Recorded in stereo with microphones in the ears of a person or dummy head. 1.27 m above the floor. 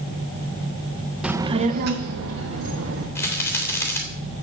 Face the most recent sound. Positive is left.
turn(degrees=15)  # may be behind; listen again after turning